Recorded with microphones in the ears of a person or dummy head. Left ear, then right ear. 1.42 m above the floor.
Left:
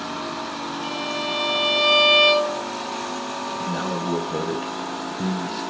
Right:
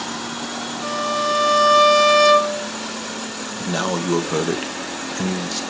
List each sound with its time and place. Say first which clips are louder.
0.8 s a violin: right 7 dB; 50° right (ahead or behind), 1.9 m
3.6 s a man speaking: right 7 dB; 80° right, 1.2 m